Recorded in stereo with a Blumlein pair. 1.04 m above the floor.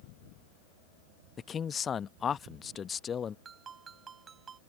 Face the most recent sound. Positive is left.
turn(degrees=-20)